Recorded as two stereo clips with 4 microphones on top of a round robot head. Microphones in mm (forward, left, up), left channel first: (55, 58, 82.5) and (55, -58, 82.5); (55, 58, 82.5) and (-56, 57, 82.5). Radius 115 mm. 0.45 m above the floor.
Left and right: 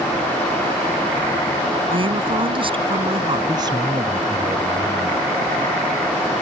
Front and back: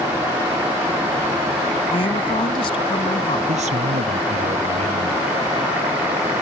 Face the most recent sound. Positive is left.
turn(degrees=-150)